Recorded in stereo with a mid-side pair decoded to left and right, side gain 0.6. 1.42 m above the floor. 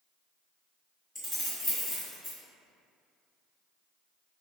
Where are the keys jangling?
5° left, 1.2 m.